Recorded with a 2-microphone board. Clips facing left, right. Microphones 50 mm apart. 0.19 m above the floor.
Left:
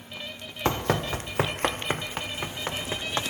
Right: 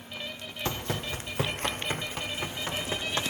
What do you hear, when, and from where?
0.7 s running footsteps: 45° left (ahead or behind), 0.6 m; by 3.2 s 30° left (ahead or behind), 2.5 m